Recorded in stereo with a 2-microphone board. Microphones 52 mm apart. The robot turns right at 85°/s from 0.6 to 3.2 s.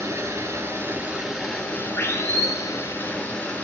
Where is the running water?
65° right, 1.6 m; by 3.6 s 155° left, 1.6 m.